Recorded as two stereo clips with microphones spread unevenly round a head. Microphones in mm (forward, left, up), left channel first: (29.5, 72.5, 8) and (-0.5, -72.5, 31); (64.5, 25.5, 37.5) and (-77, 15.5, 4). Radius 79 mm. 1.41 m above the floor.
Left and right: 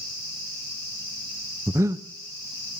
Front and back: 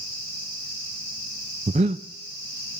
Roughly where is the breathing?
Behind right.